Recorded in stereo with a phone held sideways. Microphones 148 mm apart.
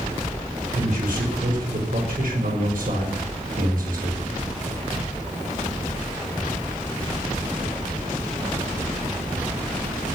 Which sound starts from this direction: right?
A man speaking, at 0.8 s.